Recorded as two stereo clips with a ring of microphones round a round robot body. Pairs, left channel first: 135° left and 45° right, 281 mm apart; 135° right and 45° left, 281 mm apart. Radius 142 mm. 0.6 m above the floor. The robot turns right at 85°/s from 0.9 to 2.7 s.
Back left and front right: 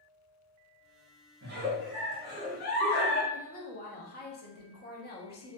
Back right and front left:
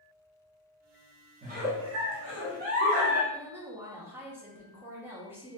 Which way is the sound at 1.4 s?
10° right.